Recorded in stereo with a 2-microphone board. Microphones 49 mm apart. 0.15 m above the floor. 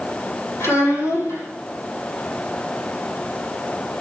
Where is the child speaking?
65° left (ahead or behind), 5 m.